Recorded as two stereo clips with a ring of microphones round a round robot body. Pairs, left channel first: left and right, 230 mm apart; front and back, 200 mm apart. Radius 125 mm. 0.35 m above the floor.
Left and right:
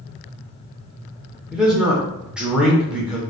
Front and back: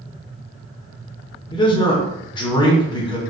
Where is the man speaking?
10° right, 0.8 m.